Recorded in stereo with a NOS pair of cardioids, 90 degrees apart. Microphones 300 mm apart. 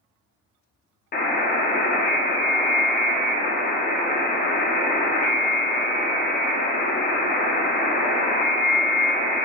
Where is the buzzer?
30° left, 0.6 m.